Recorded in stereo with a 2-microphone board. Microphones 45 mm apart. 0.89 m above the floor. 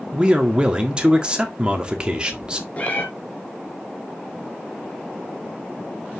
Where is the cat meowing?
35° left (ahead or behind), 2 m.